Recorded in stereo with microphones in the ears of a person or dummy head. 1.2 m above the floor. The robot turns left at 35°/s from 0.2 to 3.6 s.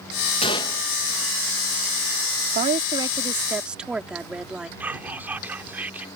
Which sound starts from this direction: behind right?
A woman speaking, at 2.5 s.